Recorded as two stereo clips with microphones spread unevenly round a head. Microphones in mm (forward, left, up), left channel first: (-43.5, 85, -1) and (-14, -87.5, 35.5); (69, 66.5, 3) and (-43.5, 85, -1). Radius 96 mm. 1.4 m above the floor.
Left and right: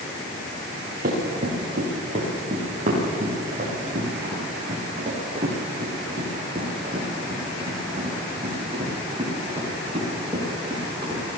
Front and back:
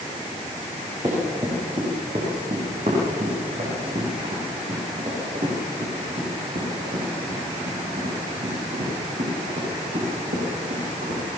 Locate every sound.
1.0 s running footsteps: 120° right, 7 m; by 11.2 s 145° right, 12.5 m